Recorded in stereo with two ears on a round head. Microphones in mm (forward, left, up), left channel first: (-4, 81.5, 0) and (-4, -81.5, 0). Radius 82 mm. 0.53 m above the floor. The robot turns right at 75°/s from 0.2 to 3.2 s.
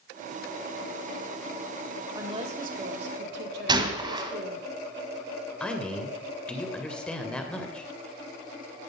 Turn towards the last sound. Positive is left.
turn(degrees=5)  # may be behind; listen again after turning